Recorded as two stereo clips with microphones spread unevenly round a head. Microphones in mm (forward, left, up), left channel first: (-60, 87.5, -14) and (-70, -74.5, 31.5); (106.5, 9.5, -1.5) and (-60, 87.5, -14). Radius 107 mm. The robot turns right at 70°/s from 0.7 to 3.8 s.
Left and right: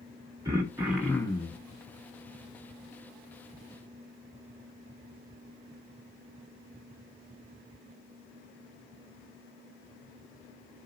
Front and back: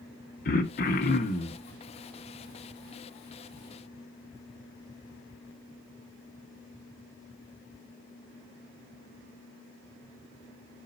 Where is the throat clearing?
40° right, 1.2 m; by 1.6 s 25° left, 1.2 m.